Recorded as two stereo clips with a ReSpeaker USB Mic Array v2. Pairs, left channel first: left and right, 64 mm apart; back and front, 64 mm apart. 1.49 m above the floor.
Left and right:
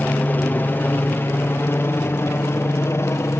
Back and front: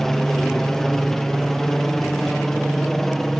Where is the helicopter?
105° left; by 3.4 s 95° left.